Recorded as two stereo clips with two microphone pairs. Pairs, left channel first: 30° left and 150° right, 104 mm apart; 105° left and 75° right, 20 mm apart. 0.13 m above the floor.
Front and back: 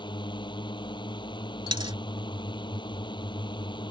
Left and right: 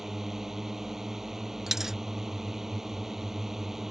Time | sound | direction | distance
0.0 | a drone | 5° right | ?
1.7 | a dropped coin | 140° right | ?